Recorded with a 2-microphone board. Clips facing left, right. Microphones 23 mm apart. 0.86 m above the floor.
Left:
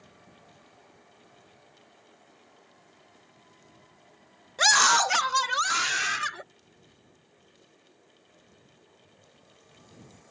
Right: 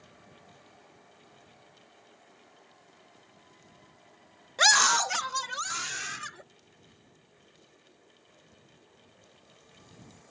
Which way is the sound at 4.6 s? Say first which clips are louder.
Left 2 dB; 10° right (ahead or behind).